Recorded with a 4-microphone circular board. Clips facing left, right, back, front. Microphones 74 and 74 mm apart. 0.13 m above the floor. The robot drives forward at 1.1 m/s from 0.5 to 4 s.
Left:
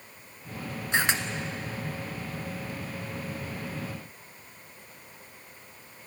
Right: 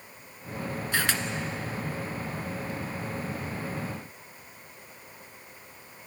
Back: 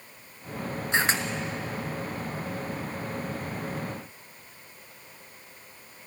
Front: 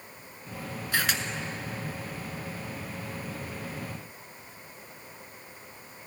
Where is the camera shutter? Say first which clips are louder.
Left 3 dB, back 3 dB; 140° left, 1.6 m; by 1.2 s 150° left, 1.7 m.